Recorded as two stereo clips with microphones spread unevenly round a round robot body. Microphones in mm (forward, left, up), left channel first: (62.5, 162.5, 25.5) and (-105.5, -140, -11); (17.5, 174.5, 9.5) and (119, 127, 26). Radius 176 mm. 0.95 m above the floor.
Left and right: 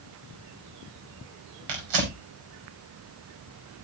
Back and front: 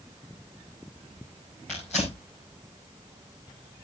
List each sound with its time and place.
1.7 s tearing paper: 120° right, 5 m